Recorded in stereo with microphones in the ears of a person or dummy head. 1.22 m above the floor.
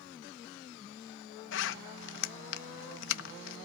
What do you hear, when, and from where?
1.5 s a zipper: 65° left (ahead or behind), 1.2 m